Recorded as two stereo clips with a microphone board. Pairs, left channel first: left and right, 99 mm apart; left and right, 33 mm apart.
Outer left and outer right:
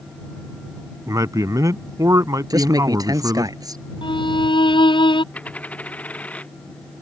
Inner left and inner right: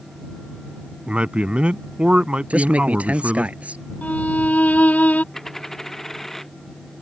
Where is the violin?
55° left (ahead or behind).